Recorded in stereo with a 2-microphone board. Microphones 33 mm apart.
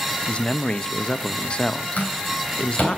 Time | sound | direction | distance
0.3 | a man speaking | 30° left (ahead or behind) | 0.5 m
2.0 | a door slam | 55° left (ahead or behind) | 3.5 m